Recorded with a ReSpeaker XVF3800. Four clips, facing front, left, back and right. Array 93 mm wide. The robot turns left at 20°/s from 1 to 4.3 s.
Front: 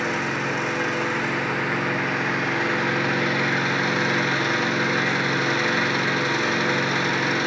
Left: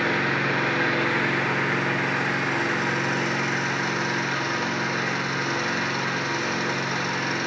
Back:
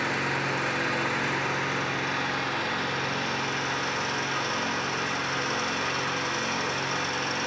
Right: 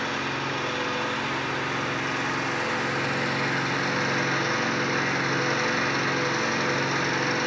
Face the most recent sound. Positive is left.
turn(degrees=0)